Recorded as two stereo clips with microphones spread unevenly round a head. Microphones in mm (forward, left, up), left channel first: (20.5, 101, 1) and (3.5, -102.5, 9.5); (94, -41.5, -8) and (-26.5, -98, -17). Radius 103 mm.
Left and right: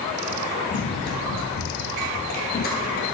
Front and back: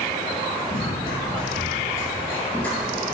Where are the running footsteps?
50° left, 2 m; by 3.1 s 110° left, 2 m.